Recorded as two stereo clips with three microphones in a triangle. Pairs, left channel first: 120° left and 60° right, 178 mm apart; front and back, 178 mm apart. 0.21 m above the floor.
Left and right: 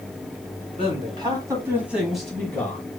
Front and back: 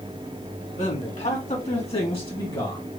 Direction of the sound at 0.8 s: 20° right.